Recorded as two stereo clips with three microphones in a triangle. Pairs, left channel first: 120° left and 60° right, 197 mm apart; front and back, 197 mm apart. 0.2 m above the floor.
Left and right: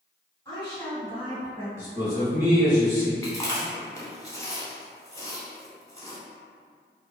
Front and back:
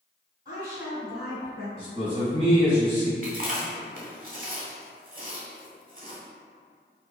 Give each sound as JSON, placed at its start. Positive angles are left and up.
{"t": 0.5, "sound": "a woman speaking", "azimuth_deg": 160, "distance_m": 1.2}
{"t": 1.8, "sound": "a man speaking", "azimuth_deg": -130, "distance_m": 1.8}
{"t": 3.2, "sound": "chewing", "azimuth_deg": -175, "distance_m": 0.7}